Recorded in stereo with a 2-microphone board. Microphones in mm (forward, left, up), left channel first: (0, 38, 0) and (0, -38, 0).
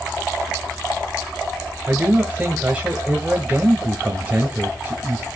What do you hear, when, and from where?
1.9 s a man speaking: 20° right (ahead or behind), 1.2 m